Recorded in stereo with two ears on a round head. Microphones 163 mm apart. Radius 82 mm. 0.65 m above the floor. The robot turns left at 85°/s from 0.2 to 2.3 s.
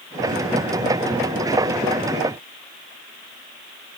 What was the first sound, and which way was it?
Only background noise.